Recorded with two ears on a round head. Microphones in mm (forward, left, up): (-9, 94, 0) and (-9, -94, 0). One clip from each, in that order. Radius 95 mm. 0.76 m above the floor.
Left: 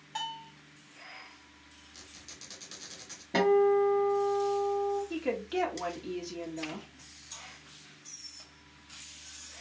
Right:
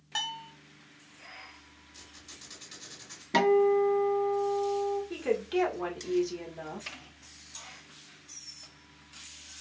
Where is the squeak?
25° left (ahead or behind), 2.5 m.